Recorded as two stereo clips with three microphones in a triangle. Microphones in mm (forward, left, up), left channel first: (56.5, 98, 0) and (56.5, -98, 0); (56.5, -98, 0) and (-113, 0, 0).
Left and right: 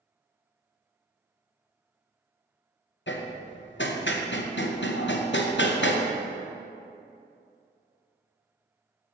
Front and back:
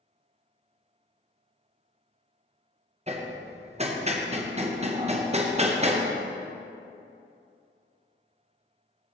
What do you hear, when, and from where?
3.1 s hammering: 95° left, 0.7 m